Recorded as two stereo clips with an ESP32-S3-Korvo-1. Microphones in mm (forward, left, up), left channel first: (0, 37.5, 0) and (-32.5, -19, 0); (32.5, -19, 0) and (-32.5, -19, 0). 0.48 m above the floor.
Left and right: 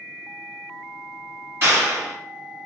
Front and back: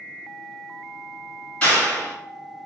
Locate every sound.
1.6 s a clap: 75° right, 1.7 m